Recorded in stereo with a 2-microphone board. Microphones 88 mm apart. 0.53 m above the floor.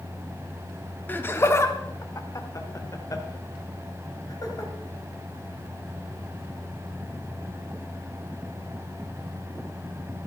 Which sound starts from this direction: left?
Laughter, at 1.1 s.